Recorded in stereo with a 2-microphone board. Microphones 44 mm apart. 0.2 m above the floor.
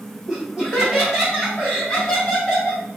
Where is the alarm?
No alarm in this recording.